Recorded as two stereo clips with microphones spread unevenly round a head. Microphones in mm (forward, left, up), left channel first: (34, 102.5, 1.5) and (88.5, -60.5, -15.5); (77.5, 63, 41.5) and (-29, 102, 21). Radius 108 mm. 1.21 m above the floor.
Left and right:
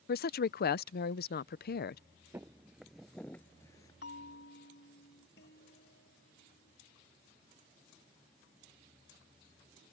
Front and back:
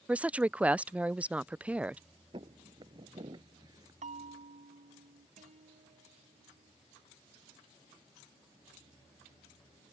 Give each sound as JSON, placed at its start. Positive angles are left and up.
{"t": 0.1, "sound": "a woman speaking", "azimuth_deg": 90}
{"t": 2.3, "sound": "footsteps", "azimuth_deg": -150}
{"t": 4.0, "sound": "a bell", "azimuth_deg": 145}
{"t": 5.4, "sound": "a guitar", "azimuth_deg": 155}